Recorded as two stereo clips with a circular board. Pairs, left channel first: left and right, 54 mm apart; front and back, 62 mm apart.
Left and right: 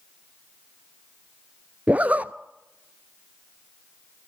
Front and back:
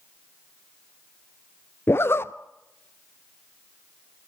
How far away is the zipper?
About 0.6 m.